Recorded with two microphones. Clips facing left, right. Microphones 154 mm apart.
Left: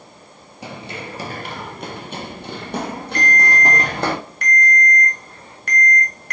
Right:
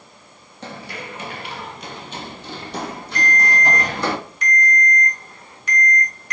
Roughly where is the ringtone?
Left.